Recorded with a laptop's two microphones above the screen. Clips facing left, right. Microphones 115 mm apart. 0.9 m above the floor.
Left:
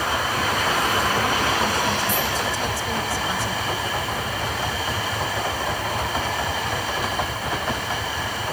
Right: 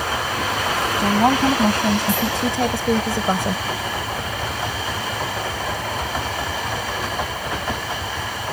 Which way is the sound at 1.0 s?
75° right (ahead or behind).